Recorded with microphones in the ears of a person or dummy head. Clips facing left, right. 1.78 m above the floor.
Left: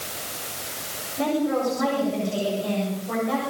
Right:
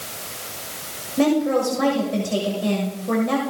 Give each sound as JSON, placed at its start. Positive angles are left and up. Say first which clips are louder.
{"t": 1.2, "sound": "a woman speaking", "louder": "right 5 dB", "side_deg": -80, "distance_m": 7.5}